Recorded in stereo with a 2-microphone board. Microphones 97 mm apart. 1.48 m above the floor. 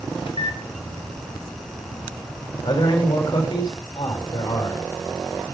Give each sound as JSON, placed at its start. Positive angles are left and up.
{"t": 0.3, "sound": "a microwave", "side_deg": 65, "distance_m": 1.8}
{"t": 2.6, "sound": "a man speaking", "side_deg": 50, "distance_m": 5.0}